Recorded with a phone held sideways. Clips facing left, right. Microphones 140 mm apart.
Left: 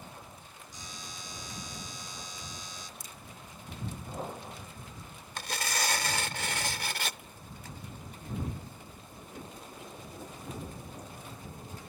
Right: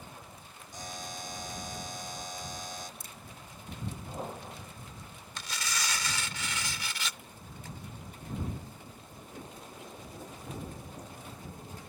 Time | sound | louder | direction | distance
0.7 | a buzzer | right 7 dB | 55° right (ahead or behind) | ?
3.0 | a crack | even | 55° right (ahead or behind) | ?
5.4 | tearing paper | left 4 dB | 55° left (ahead or behind) | ?